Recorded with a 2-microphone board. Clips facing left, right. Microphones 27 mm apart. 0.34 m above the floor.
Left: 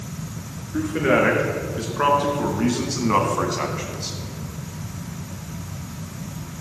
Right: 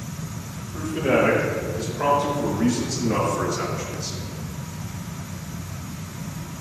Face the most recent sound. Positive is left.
turn(degrees=35)  # may be behind; listen again after turning